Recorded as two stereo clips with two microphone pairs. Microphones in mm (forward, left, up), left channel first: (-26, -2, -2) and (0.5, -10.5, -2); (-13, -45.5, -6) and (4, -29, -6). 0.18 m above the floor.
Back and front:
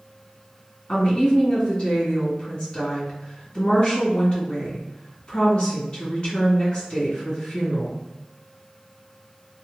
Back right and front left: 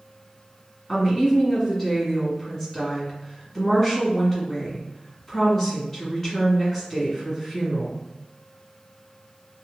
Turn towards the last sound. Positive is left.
turn(degrees=150)